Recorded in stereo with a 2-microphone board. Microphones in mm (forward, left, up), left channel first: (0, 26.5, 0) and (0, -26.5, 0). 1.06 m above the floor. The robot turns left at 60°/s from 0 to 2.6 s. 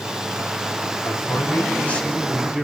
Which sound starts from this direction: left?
A man speaking, at 1.0 s.